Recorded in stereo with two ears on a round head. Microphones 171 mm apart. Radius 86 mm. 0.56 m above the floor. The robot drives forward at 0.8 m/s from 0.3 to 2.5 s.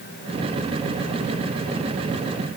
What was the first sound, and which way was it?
Only background noise.